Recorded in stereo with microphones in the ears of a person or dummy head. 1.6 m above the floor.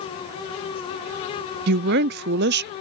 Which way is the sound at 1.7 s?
60° right (ahead or behind).